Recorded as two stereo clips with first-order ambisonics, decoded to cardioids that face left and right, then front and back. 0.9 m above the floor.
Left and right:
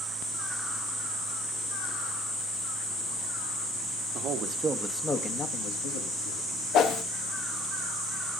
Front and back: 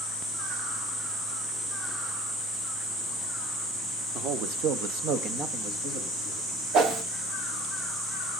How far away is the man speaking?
About 1.5 m.